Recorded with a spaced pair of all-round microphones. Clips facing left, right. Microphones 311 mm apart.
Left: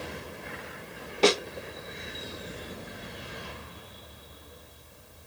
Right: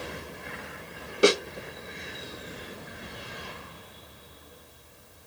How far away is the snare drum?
About 0.9 m.